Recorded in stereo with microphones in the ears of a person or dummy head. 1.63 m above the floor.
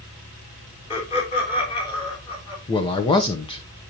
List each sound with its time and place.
0.9 s laughter: 35° left (ahead or behind), 3.5 m; by 2.6 s 25° left (ahead or behind), 4.5 m
2.7 s a man speaking: 25° left (ahead or behind), 0.6 m